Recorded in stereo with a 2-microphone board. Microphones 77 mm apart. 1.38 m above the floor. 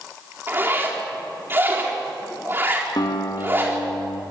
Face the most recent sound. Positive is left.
turn(degrees=75)  # may be behind; listen again after turning